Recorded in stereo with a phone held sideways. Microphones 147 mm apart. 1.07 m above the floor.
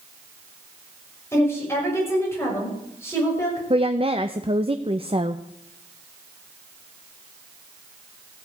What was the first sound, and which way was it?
A woman speaking, 20° left (ahead or behind).